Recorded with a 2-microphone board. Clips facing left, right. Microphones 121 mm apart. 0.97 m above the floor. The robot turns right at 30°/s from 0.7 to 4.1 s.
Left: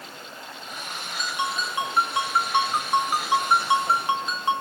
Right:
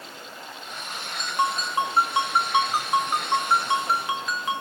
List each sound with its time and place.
1.2 s a ringtone: 55° right, 1.2 m; by 4.6 s 35° left, 1.2 m